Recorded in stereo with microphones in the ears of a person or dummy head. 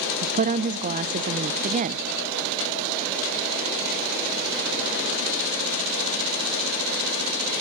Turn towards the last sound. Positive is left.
turn(degrees=-40)  # may be behind; listen again after turning